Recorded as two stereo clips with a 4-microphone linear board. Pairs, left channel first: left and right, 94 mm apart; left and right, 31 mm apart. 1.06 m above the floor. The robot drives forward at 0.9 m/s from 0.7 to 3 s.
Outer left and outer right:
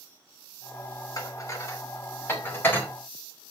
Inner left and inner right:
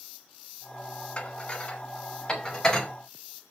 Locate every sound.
1.2 s dishes clattering: 35° left (ahead or behind), 1.6 m; by 2.9 s 20° left (ahead or behind), 3 m